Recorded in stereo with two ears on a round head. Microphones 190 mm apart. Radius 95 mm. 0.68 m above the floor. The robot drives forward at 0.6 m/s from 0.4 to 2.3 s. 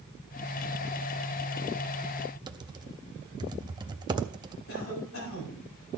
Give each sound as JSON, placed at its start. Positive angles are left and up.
{"t": 2.5, "sound": "typing on a keyboard", "side_deg": -20, "distance_m": 0.6}
{"t": 4.7, "sound": "a cough", "side_deg": 65, "distance_m": 5.5}